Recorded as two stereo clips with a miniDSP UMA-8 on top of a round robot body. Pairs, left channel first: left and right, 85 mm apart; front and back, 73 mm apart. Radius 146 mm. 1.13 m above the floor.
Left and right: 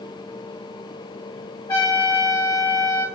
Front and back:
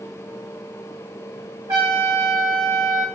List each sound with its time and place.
1.7 s a trumpet: 135° left, 1.6 m